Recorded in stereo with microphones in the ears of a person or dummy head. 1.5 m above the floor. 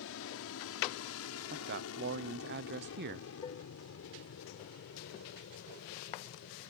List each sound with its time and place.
0.0 s an aircraft: 70° left (ahead or behind); by 6.7 s 60° left (ahead or behind)
1.5 s a man speaking: 55° right (ahead or behind)
3.4 s dishes clattering: 25° left (ahead or behind)